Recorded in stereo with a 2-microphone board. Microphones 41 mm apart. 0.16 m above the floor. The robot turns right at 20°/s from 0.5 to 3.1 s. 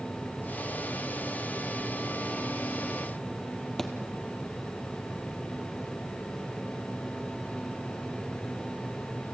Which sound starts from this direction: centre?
A thud, at 3.8 s.